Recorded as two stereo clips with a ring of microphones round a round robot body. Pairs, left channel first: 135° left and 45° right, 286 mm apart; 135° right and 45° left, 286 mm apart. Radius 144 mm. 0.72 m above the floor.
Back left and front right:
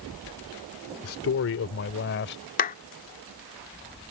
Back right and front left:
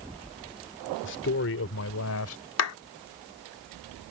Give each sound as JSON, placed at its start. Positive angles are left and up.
{"t": 1.0, "sound": "a man speaking", "azimuth_deg": 175}
{"t": 2.6, "sound": "a clap", "azimuth_deg": -165}